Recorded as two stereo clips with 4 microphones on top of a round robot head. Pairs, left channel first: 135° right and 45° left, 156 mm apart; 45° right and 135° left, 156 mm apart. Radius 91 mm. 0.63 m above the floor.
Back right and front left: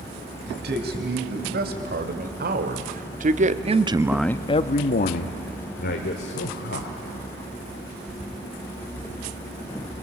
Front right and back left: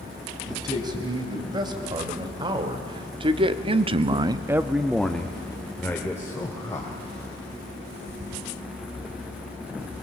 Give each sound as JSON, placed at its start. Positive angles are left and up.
{"t": 0.5, "sound": "a man speaking", "azimuth_deg": 65, "distance_m": 4.0}